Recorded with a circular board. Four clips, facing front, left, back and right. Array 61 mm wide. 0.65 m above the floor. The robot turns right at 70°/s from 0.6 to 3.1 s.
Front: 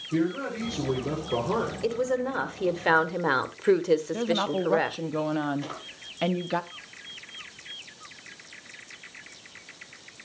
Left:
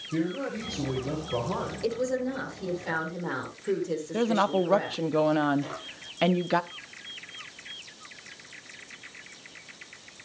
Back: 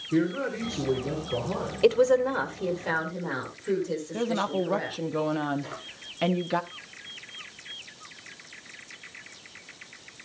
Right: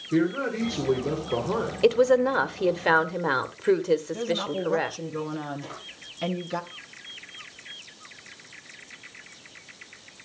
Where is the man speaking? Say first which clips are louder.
Right 5 dB, back 1 dB; 115° right, 3 m; by 1.7 s 35° right, 3 m.